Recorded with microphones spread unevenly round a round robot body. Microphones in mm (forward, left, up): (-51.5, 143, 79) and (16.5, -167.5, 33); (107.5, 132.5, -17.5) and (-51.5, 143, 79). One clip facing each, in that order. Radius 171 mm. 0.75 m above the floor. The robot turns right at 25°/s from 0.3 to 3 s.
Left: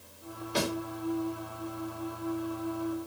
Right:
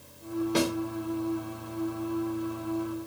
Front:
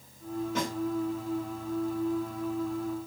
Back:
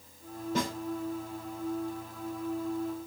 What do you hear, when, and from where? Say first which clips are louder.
0.6 s a snare drum: right 4 dB, back 3 dB; 110° right, 2.0 m; by 0.7 s 105° right, 2.0 m